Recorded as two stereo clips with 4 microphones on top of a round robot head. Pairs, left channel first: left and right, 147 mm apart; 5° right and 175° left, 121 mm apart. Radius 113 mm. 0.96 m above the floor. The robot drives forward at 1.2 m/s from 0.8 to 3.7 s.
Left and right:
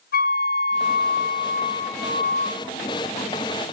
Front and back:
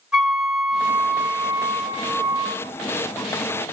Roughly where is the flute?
Left.